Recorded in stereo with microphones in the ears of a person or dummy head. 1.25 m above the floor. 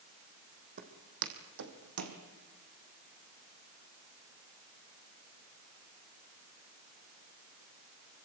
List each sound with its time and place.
0.8 s footsteps: 55° right (ahead or behind), 3 m; by 2.2 s 65° right (ahead or behind), 3.5 m